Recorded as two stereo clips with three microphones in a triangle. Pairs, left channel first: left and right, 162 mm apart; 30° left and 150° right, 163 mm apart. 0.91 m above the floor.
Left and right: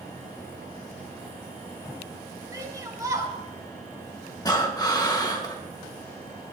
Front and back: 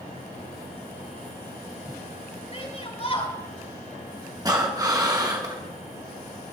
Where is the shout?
20° right, 8 m.